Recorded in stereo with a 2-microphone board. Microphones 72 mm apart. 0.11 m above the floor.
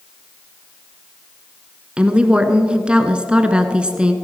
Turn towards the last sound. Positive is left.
turn(degrees=-15)  # may be behind; listen again after turning